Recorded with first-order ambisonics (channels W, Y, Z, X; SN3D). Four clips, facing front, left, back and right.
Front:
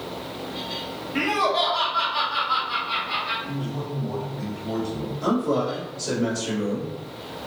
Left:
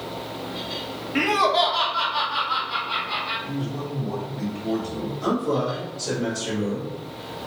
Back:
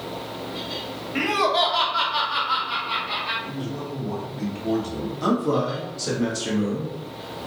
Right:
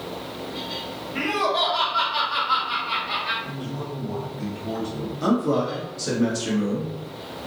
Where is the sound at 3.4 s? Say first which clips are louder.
Left 2 dB, even; 160° left, 1.5 m.